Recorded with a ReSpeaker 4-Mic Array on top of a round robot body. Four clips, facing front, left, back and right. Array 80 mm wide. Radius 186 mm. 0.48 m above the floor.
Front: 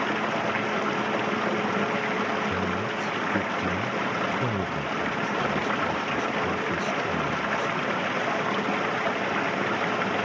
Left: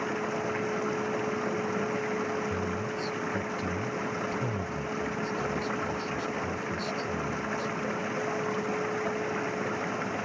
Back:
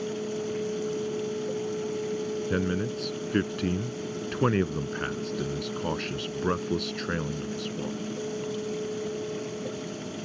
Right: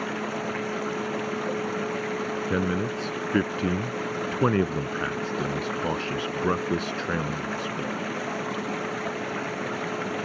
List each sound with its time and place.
0.0 s running water: 5° right
2.5 s a man speaking: 110° right